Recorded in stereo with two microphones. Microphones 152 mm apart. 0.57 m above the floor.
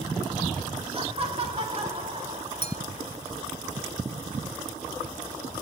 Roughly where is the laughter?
Right.